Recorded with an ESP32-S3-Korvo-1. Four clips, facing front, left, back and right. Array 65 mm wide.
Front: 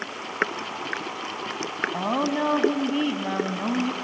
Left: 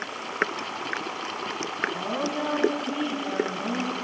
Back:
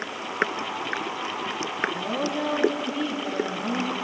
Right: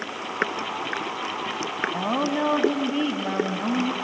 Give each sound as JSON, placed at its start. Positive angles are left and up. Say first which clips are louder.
{"t": 1.9, "sound": "a woman speaking", "louder": "right 4 dB, front 3 dB", "azimuth_deg": -40, "distance_m": 1.8}